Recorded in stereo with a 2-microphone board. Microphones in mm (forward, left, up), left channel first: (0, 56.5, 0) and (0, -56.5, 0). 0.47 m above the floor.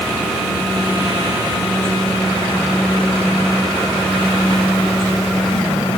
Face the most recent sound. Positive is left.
No sound to turn to.